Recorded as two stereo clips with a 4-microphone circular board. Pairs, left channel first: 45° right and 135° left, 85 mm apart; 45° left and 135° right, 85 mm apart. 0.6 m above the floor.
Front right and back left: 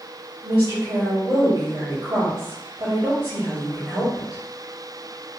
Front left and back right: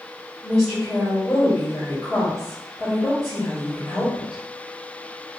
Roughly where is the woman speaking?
Behind left.